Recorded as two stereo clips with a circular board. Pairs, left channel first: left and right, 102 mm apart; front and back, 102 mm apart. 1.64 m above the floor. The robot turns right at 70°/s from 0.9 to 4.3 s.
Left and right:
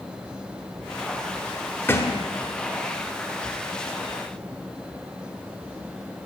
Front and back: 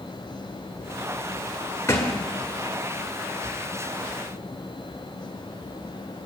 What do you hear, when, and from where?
1.9 s a thud: 45° left, 1.6 m; by 2.2 s 65° left, 1.6 m